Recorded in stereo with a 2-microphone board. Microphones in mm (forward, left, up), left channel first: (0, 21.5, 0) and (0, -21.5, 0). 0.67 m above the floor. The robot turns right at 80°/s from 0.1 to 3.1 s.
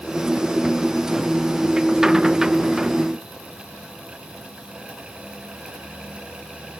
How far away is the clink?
I don't hear a clink.